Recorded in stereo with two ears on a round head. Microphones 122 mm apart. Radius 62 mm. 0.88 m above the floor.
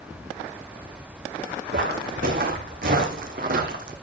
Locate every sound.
1.7 s footsteps: 70° right (ahead or behind), 3 m; by 4.0 s 65° right (ahead or behind), 2 m